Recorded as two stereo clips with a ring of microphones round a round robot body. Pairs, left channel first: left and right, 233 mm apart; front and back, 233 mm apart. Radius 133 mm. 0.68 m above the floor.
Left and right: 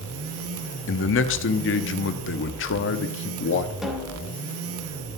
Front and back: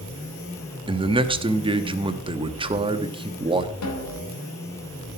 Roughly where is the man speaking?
Behind left.